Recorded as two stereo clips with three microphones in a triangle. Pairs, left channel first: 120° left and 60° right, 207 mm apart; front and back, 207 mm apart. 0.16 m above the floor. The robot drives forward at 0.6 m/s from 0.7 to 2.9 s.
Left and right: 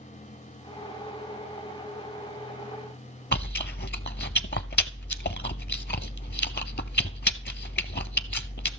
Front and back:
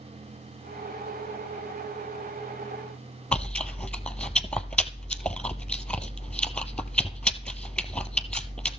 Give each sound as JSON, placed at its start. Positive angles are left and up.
{"t": 3.3, "sound": "chewing", "azimuth_deg": 85, "distance_m": 0.5}